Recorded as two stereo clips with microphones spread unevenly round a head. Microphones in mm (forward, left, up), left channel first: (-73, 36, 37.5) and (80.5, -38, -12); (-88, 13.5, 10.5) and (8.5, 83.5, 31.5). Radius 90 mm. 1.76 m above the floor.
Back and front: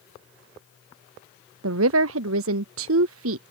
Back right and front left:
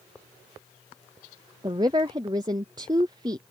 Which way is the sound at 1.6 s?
30° right.